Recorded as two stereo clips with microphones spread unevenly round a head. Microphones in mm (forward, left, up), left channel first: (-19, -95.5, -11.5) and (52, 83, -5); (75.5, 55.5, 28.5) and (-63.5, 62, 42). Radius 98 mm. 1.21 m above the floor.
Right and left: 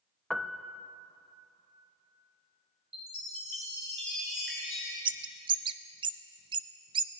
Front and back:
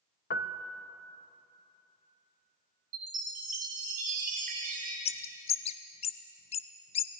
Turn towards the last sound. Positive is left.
turn(degrees=20)